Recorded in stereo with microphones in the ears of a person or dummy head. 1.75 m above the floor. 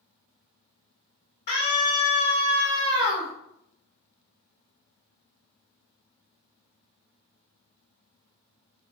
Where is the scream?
40° left (ahead or behind), 1.1 m; by 3.3 s 40° right (ahead or behind), 1.4 m.